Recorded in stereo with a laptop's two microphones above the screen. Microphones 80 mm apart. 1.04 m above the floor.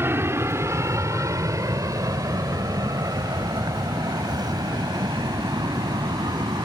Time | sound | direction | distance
0.0 | an aircraft | 30° right (ahead or behind) | ?